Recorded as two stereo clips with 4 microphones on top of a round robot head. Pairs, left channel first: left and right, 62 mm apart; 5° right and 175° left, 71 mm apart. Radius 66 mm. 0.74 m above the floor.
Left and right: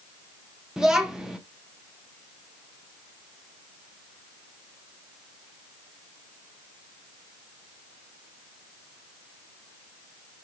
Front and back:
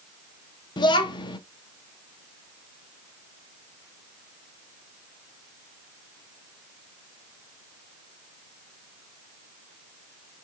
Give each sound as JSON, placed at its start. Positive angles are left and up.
{"t": 0.8, "sound": "a child speaking", "azimuth_deg": -5, "distance_m": 0.8}